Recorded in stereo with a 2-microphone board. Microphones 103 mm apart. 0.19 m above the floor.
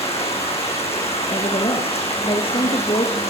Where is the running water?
85° left, 8.5 m.